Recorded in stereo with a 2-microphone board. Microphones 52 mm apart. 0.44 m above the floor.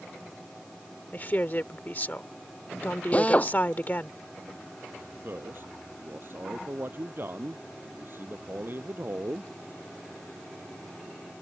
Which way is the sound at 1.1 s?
35° left (ahead or behind).